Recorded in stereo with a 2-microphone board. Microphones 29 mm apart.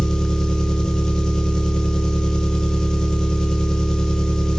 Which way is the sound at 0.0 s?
25° left (ahead or behind).